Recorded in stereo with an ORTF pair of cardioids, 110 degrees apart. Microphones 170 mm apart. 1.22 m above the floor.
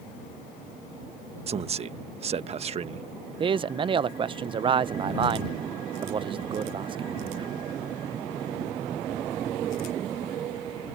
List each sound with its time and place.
1.5 s a man speaking: 40° right
3.4 s a man speaking: 30° right